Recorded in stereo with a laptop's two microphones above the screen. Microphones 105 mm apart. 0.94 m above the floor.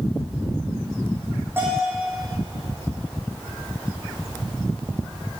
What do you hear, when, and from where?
1.6 s a bell: 20° right (ahead or behind), 7.5 m